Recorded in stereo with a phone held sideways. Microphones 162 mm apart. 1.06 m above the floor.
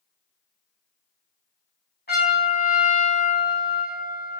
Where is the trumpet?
75° left (ahead or behind), 1.8 m.